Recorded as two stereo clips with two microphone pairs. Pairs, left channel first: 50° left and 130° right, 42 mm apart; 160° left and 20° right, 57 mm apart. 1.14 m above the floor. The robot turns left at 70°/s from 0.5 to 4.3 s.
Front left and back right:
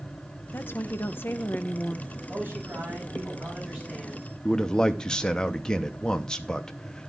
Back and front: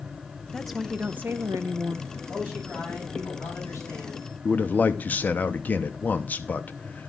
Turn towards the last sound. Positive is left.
turn(degrees=110)